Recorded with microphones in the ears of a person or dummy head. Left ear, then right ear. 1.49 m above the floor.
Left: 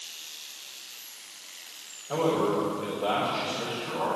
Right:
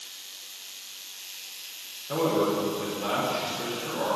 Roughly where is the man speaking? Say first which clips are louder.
Even; right.